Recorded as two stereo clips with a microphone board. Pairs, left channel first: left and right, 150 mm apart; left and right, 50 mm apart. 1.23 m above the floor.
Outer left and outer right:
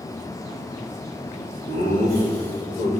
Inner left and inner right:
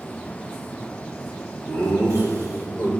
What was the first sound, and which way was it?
Laughter, 80° left.